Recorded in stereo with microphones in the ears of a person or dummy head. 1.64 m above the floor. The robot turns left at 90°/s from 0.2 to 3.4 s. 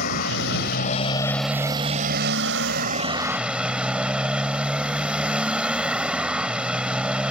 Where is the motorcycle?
115° left; by 7.3 s 175° right.